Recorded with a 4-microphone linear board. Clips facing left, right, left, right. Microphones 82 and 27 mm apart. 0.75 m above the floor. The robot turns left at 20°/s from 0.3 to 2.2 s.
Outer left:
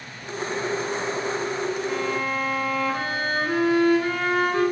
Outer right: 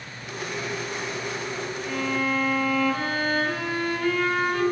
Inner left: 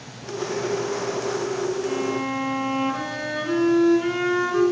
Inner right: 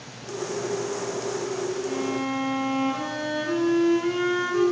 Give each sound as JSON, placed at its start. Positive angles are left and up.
{"t": 1.8, "sound": "a violin", "side_deg": 30, "distance_m": 6.5}